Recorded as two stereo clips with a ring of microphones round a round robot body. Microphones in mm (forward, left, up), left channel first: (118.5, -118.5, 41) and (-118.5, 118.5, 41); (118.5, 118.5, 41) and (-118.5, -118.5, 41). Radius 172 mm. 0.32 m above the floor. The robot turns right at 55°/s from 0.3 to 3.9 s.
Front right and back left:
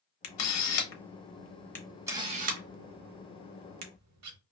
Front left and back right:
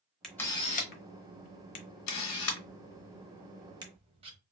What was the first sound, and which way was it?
A camera shutter, 45° right.